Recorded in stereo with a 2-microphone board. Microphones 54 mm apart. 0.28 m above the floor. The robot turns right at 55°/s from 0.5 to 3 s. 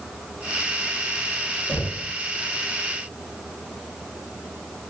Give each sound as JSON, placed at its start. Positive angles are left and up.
{"t": 1.7, "sound": "knocking", "side_deg": 50, "distance_m": 1.2}